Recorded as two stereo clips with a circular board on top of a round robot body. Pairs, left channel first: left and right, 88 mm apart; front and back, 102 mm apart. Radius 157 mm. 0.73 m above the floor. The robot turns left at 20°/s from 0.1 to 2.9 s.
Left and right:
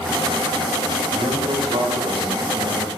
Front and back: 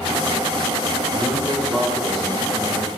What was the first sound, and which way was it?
A man speaking, 70° right.